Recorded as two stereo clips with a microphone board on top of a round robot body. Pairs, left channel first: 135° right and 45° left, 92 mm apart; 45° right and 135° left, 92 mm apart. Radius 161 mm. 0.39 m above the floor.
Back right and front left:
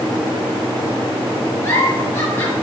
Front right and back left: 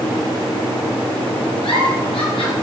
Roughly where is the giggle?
Right.